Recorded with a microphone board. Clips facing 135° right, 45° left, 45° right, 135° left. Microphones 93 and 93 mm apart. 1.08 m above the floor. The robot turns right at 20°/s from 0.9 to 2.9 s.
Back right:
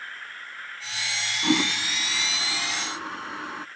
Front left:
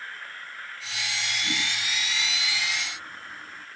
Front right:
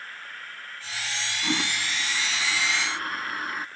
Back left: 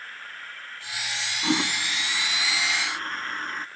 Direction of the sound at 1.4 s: 155° right.